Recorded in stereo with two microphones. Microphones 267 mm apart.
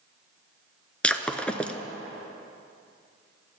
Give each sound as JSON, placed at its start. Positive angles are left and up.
{"t": 1.0, "sound": "breaking glass", "side_deg": 5, "distance_m": 0.5}